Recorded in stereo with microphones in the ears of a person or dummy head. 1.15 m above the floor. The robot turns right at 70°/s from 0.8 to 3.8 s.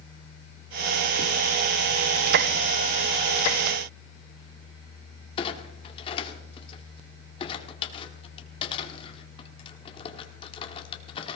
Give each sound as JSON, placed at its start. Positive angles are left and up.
{"t": 5.4, "sound": "a clunk", "side_deg": 30, "distance_m": 1.6}